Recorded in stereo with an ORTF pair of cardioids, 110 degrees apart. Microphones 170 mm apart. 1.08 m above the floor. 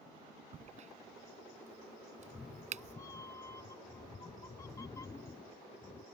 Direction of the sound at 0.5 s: 45° right.